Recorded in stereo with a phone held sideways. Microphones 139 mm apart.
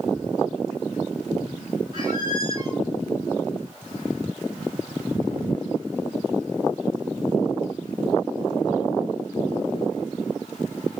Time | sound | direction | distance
1.9 | a squeak | 30° right (ahead or behind) | 1.2 m